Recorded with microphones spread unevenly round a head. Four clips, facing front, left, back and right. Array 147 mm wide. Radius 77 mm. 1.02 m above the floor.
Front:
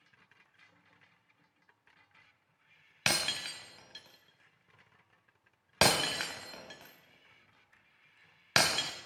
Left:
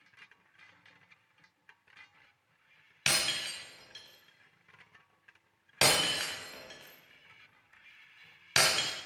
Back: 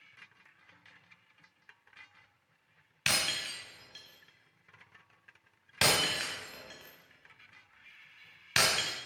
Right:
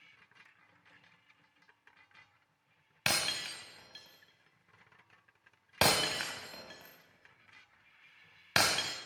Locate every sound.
3.1 s breaking glass: 20° right, 1.7 m